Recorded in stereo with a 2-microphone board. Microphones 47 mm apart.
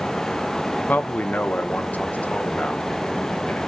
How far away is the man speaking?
About 0.7 m.